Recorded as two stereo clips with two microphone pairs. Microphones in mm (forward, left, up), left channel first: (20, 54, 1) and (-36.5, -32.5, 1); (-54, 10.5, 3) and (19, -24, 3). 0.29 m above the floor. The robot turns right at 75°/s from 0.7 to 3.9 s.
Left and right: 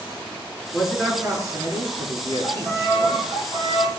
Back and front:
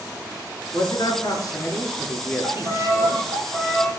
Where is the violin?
70° right, 7.5 m; by 3.9 s 40° left, 7.5 m.